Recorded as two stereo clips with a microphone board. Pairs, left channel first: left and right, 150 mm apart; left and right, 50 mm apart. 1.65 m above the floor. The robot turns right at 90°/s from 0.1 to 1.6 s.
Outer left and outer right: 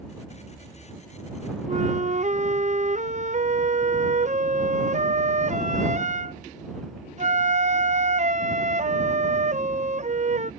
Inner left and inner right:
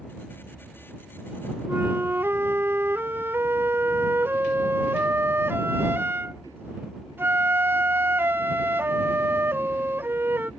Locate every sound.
1.7 s a flute: 50° right (ahead or behind)